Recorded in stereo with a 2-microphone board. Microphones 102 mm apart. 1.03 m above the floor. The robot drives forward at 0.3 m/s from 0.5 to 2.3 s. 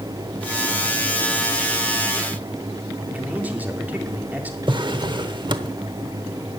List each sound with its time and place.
3.0 s a man speaking: 15° right (ahead or behind), 2.5 m
4.7 s a drawer: 45° right (ahead or behind), 1.0 m